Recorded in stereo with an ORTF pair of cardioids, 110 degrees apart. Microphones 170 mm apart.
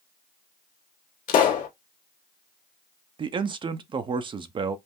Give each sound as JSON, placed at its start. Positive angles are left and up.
{"t": 1.3, "sound": "a pop", "azimuth_deg": 60, "distance_m": 1.9}
{"t": 3.2, "sound": "a man speaking", "azimuth_deg": -30, "distance_m": 0.6}